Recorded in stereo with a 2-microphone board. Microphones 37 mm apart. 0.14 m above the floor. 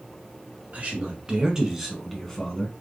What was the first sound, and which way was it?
A man speaking, 40° right (ahead or behind).